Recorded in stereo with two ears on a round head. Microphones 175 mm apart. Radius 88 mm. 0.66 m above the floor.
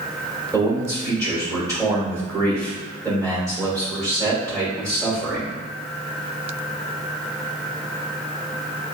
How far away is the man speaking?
About 1.9 m.